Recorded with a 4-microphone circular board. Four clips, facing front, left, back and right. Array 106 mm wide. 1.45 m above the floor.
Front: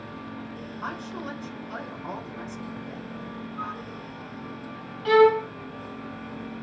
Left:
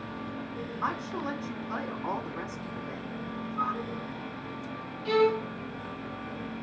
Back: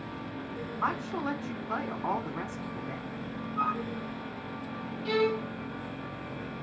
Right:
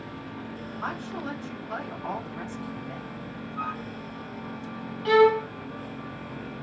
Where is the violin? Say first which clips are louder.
Right 6 dB, front 11 dB; 45° right, 0.8 m.